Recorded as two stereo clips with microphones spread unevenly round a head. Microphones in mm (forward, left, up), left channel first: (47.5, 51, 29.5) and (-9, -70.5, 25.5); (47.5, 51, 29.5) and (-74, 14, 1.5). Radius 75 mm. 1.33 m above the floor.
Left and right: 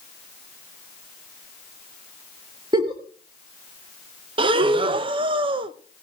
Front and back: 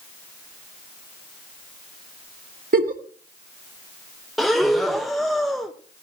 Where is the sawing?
I don't hear sawing.